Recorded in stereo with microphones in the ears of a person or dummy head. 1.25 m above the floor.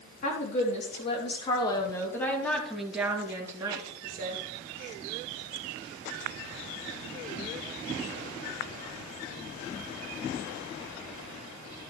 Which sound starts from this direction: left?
A woman speaking, at 0.2 s.